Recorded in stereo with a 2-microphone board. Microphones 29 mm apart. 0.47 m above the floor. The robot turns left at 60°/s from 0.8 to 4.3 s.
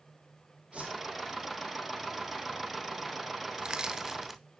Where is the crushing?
35° right (ahead or behind), 0.6 m; by 4.4 s 10° right (ahead or behind), 0.6 m.